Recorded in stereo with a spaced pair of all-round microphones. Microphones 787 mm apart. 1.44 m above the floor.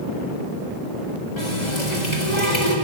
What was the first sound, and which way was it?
A running tap, 60° left (ahead or behind).